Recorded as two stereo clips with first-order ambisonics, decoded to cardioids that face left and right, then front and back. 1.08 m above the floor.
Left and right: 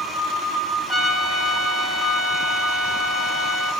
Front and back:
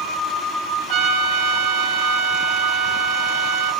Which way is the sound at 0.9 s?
Straight behind.